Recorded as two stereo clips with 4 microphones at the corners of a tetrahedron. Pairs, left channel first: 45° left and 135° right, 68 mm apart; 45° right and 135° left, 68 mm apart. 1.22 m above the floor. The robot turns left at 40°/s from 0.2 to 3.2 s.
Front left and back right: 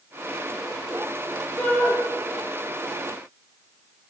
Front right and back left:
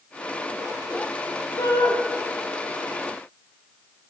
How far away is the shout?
About 1.9 m.